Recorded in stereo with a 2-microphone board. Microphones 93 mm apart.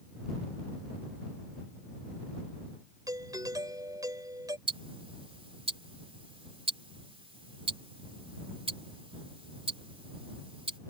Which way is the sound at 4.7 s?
80° right.